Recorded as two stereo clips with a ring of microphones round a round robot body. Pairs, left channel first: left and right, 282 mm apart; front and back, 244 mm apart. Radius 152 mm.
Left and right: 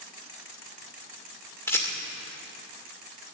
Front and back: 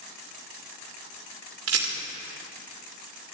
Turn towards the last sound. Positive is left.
turn(degrees=170)